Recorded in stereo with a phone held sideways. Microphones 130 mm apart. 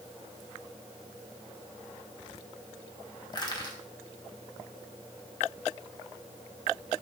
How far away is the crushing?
About 1.5 m.